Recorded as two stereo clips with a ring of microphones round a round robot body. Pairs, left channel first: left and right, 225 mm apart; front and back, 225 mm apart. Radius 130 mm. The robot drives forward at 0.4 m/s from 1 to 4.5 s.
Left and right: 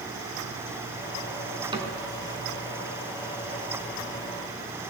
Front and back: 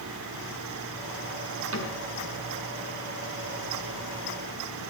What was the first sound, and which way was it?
A cupboard door, 160° right.